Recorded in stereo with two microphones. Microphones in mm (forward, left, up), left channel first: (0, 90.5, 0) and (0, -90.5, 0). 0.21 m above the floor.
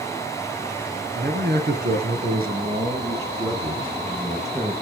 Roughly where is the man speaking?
Right.